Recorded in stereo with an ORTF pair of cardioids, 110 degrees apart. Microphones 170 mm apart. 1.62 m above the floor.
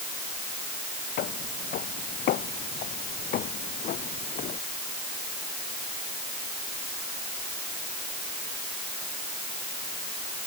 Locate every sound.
1.2 s footsteps: 70° left; by 4.6 s 55° left